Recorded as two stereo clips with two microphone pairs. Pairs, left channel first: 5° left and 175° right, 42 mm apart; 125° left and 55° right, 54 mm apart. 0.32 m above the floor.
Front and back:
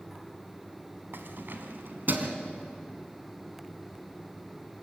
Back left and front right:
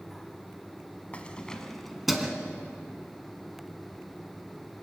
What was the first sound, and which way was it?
Keys jangling, 175° right.